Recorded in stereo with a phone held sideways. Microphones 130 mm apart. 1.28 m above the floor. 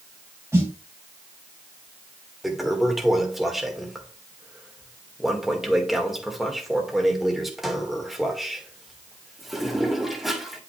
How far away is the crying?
No crying in this recording.